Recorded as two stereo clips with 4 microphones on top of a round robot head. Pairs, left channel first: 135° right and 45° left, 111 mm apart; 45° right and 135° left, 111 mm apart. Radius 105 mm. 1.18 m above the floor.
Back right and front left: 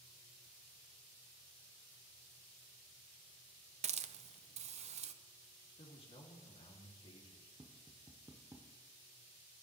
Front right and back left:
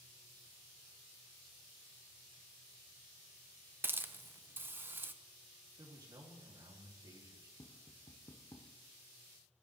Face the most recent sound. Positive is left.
turn(degrees=-5)